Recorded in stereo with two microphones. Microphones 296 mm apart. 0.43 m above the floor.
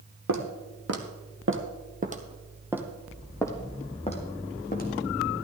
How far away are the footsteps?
About 1.5 m.